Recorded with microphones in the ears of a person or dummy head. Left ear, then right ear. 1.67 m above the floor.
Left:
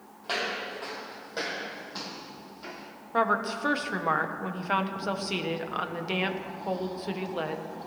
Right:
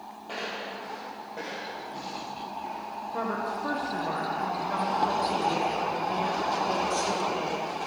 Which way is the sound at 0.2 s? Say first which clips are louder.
Left 4 dB; 60° left (ahead or behind).